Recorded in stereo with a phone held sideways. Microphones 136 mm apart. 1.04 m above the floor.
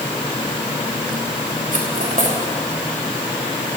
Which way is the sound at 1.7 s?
75° right (ahead or behind).